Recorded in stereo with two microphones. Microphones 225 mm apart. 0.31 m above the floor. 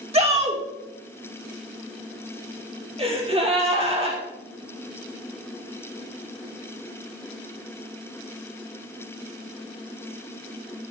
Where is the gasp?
25° right (ahead or behind), 3 m.